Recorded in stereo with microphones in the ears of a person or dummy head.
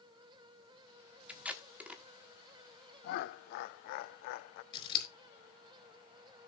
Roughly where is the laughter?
Left.